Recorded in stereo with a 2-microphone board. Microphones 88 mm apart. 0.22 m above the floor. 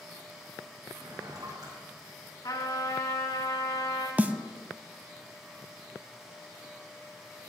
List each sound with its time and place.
0.9 s a drawer: 50° right (ahead or behind), 5 m
2.4 s a trumpet: 55° left (ahead or behind), 3 m
4.2 s a snare drum: 20° right (ahead or behind), 0.6 m